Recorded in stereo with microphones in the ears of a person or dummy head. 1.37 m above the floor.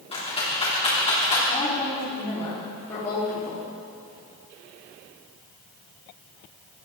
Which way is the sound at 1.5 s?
20° left (ahead or behind).